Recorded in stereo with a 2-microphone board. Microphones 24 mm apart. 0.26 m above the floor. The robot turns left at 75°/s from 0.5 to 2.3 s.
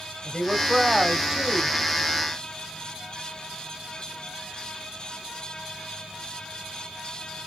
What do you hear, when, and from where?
0.2 s a woman speaking: centre (ahead or behind), 0.9 m; by 1.8 s 20° right (ahead or behind), 0.9 m